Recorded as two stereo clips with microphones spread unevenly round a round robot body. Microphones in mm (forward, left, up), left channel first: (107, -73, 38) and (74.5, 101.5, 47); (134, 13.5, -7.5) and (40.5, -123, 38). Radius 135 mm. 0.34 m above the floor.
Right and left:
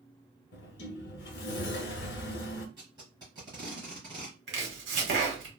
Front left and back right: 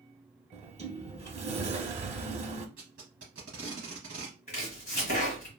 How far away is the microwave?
No microwave in this recording.